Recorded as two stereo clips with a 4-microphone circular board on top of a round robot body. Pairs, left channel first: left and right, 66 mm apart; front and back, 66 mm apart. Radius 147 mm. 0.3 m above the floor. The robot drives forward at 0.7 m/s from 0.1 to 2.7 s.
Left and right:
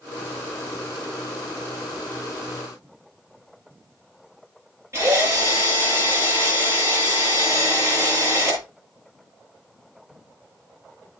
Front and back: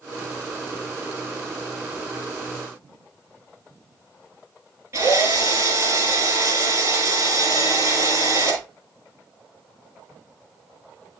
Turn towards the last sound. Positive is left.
turn(degrees=-135)